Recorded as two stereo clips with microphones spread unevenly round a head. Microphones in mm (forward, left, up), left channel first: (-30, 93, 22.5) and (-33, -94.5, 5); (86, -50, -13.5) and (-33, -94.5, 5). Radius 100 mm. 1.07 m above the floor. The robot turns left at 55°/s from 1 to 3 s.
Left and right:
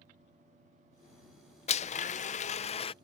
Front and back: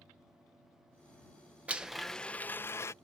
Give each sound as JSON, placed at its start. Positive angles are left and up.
{"t": 1.7, "sound": "a blender", "azimuth_deg": 115}